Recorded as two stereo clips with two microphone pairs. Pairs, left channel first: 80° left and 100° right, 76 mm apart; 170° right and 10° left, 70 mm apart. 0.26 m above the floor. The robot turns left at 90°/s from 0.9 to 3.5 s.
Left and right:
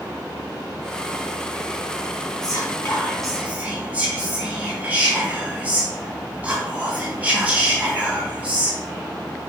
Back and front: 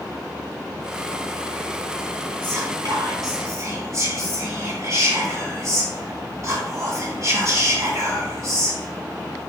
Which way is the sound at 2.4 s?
65° left.